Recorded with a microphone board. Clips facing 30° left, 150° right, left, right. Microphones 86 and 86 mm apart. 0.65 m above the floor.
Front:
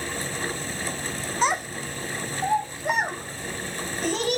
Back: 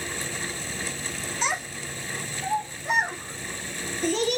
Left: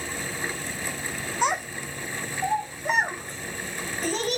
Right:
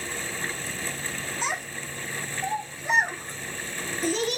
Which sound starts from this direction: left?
A child speaking, at 1.4 s.